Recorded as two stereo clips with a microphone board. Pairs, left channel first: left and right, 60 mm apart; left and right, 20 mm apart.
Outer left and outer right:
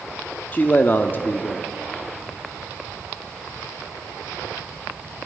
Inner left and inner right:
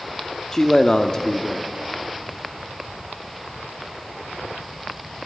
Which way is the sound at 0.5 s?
30° left (ahead or behind).